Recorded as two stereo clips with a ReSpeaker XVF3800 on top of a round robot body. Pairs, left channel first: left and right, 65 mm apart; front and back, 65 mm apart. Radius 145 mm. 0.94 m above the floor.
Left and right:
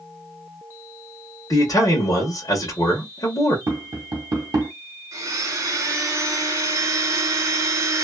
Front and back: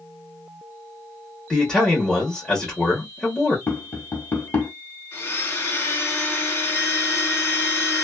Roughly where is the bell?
I don't hear a bell.